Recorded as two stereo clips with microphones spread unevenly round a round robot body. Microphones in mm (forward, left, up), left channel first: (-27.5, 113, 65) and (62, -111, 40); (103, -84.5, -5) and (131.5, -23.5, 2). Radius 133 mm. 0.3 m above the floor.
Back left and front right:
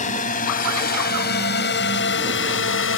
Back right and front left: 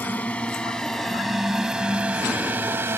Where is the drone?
170° left; by 3.0 s 115° left.